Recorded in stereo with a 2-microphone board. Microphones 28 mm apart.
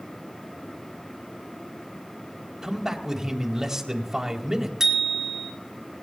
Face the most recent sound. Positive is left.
turn(degrees=-15)  # may be behind; listen again after turning